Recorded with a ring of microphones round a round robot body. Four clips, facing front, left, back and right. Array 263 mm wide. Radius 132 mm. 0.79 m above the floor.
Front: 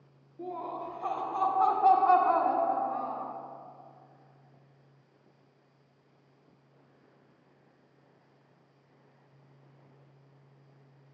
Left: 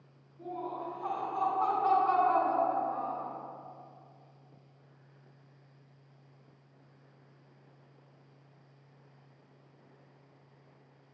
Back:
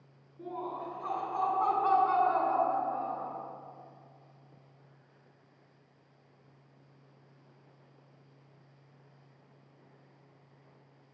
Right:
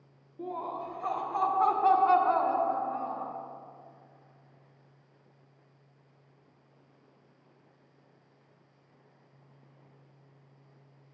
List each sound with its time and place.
0.4 s laughter: 55° right, 1.5 m; by 3.3 s 15° left, 2 m